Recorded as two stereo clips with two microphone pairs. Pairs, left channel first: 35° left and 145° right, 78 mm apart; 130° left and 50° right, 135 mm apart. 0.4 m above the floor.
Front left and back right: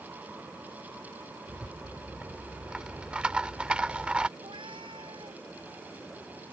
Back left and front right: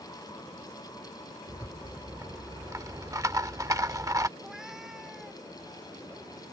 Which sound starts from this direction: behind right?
A cat meowing, at 4.4 s.